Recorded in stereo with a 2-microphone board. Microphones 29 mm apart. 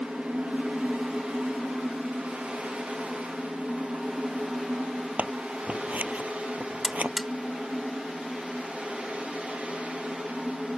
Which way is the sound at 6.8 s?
5° right (ahead or behind).